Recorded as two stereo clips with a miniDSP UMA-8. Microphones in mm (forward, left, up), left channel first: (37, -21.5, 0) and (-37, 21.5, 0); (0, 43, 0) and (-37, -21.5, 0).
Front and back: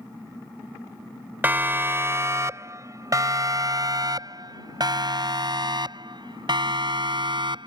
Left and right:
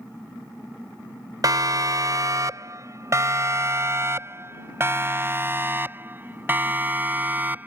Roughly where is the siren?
Behind right.